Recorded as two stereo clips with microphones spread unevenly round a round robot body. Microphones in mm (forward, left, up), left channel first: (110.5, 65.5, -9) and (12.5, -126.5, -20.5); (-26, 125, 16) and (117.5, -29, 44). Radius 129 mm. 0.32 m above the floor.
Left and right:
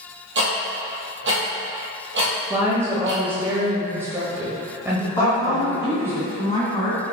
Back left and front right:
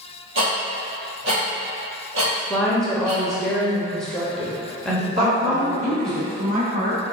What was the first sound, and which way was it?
Ticking, 90° right.